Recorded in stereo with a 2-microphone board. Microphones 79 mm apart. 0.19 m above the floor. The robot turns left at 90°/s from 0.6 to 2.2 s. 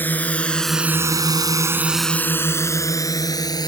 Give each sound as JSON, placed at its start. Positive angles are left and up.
{"t": 0.0, "sound": "a drone", "side_deg": 20}